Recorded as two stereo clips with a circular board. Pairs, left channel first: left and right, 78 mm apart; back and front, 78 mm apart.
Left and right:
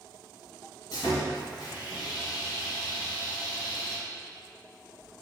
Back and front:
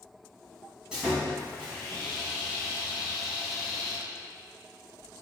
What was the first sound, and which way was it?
Sawing, 75° left.